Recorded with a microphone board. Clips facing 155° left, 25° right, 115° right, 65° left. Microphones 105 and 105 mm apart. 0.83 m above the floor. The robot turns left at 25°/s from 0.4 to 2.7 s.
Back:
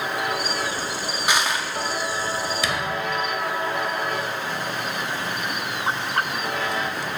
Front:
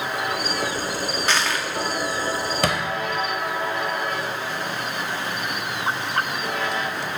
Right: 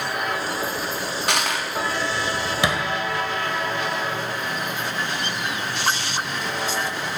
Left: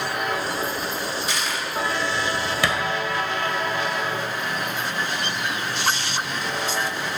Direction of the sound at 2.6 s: 45° right.